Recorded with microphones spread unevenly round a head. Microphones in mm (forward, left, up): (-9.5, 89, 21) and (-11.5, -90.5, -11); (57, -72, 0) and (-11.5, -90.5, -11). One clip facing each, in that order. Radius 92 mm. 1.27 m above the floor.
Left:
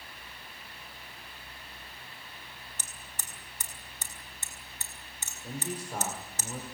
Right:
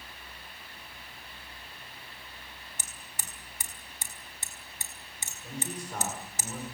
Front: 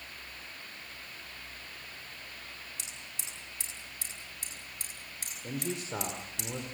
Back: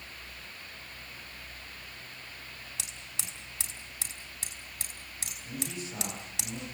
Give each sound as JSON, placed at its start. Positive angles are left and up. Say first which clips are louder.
{"t": 2.8, "sound": "hammering", "louder": "even, back 1 dB", "azimuth_deg": -170, "distance_m": 4.5}
{"t": 5.4, "sound": "a man speaking", "louder": "left 1 dB, front 3 dB", "azimuth_deg": 10, "distance_m": 4.0}